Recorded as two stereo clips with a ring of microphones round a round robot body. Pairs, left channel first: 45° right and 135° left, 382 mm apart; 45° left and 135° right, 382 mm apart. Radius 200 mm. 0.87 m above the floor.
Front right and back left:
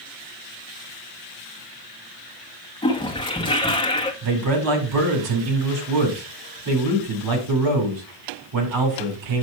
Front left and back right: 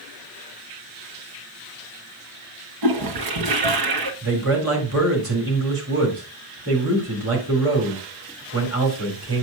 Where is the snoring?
No snoring in this recording.